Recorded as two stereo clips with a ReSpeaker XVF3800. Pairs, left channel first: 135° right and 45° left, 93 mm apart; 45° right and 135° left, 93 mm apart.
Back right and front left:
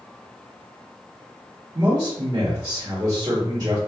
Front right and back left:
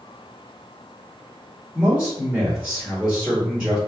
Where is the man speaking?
55° left, 1.2 m.